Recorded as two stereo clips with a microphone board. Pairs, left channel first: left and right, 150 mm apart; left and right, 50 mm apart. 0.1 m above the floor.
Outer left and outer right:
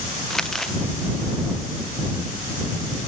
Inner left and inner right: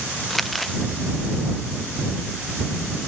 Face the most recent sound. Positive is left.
turn(degrees=5)  # may be behind; listen again after turning